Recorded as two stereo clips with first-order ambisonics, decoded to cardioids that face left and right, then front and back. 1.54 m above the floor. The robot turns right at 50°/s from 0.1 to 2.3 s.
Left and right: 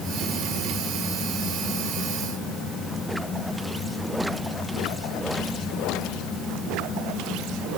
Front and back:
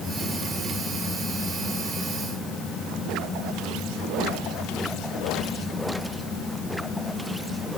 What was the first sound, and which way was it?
Only background noise.